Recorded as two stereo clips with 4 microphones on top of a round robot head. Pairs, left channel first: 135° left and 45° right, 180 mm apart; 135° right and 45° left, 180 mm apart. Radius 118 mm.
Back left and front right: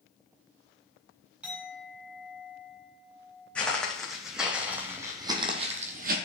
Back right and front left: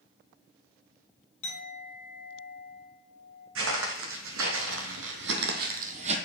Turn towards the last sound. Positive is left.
turn(degrees=-10)